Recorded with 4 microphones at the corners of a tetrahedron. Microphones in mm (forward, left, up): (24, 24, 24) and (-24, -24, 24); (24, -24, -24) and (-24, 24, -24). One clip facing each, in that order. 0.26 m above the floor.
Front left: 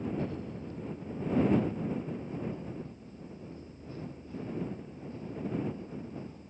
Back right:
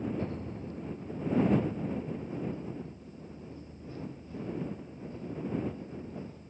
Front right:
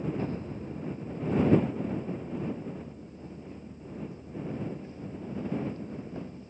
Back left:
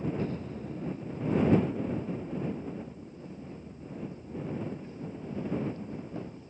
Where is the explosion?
95° right.